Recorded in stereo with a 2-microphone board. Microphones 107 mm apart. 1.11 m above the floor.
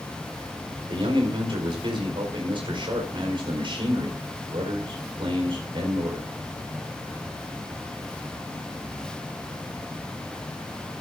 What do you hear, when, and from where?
0.9 s a man speaking: 55° right (ahead or behind), 4.5 m